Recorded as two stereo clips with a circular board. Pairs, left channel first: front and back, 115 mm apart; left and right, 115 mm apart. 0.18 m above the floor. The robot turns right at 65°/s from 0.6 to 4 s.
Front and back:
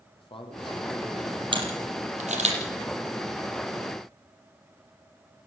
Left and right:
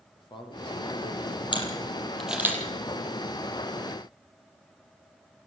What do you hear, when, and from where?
0.2 s a man speaking: 40° left, 6 m; by 1.4 s 95° left, 6 m
1.5 s a camera shutter: 135° left, 5 m; by 2.6 s 155° right, 5 m